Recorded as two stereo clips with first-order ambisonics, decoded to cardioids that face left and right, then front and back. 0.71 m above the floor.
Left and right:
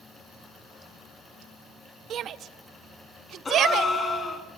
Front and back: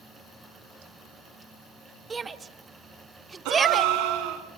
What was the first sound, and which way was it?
A shout, 120° right.